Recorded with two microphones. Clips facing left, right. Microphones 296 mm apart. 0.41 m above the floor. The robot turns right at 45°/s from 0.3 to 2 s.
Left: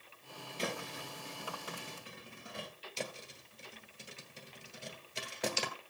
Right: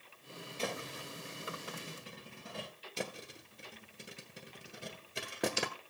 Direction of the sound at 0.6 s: 20° left (ahead or behind).